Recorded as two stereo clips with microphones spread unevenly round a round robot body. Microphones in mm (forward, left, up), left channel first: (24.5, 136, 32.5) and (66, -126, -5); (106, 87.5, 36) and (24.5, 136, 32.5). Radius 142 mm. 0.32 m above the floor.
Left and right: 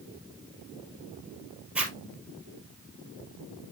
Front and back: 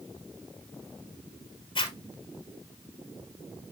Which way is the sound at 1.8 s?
5° left.